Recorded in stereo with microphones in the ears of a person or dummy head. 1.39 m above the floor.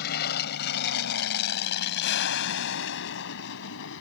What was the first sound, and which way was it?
An aircraft, 55° left (ahead or behind).